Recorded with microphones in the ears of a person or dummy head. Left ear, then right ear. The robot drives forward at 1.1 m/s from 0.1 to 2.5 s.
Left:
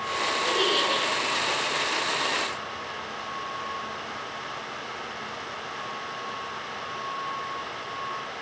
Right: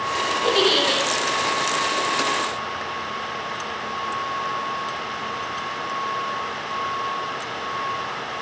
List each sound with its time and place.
0.4 s a giggle: 70° right (ahead or behind), 8.5 m; by 1.0 s 65° right (ahead or behind), 9 m